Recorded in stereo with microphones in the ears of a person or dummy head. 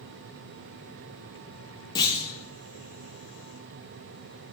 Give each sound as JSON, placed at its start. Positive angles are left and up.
{"t": 1.9, "sound": "a clunk", "side_deg": 20, "distance_m": 0.7}